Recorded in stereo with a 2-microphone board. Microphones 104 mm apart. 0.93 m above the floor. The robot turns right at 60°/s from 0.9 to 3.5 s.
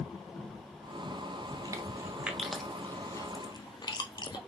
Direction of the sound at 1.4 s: 45° right (ahead or behind).